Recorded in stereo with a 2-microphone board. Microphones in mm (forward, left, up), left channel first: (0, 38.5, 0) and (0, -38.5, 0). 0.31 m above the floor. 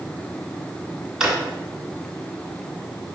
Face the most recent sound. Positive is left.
turn(degrees=-5)  # may be behind; listen again after turning